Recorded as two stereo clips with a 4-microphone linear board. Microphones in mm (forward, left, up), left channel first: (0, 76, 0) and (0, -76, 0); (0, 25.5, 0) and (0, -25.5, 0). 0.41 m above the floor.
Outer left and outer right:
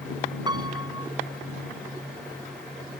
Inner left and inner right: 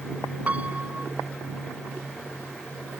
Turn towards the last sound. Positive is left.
turn(degrees=-30)  # may be behind; listen again after turning